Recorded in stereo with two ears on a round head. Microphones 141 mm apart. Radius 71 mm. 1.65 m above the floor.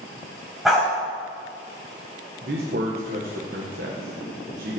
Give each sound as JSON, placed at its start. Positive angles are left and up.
{"t": 0.7, "sound": "a dog barking", "side_deg": 0, "distance_m": 4.0}
{"t": 2.4, "sound": "a man speaking", "side_deg": -55, "distance_m": 1.8}